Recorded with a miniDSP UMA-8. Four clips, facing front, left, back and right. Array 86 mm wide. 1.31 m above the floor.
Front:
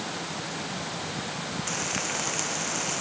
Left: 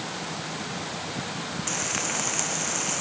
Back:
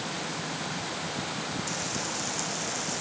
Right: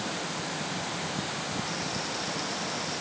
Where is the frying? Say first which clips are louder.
Left 2 dB, front 2 dB; 55° left.